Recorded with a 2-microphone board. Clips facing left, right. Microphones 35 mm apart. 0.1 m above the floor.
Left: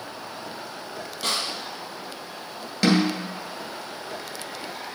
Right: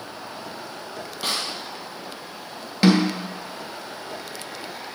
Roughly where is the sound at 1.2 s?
Centre.